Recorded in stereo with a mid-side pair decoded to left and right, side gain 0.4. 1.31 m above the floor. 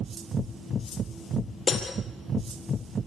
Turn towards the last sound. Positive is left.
turn(degrees=50)